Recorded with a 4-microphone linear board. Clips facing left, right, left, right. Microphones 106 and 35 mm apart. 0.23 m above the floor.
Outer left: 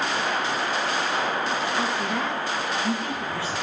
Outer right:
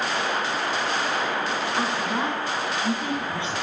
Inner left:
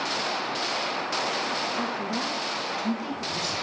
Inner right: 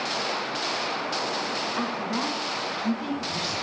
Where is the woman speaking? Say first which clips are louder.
Outer right 1 dB, inner right 1 dB; 20° right (ahead or behind), 2.5 m.